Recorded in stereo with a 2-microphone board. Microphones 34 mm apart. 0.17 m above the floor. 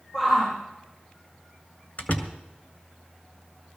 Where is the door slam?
55° left (ahead or behind), 1.9 m.